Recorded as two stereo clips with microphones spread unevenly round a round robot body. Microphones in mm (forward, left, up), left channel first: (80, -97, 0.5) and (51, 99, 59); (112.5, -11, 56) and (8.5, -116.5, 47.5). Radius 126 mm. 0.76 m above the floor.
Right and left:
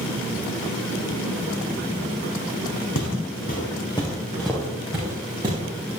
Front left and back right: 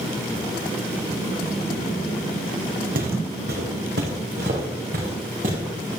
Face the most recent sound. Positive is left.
turn(degrees=165)